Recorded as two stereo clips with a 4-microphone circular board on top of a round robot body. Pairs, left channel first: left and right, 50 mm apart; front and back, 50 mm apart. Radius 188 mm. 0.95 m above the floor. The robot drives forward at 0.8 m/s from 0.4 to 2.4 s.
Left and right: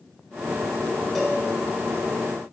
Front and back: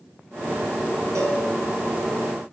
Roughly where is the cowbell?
Behind.